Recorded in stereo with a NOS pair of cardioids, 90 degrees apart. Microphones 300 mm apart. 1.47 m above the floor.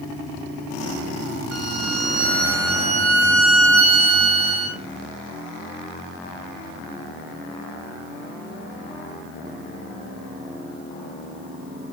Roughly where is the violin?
Ahead right.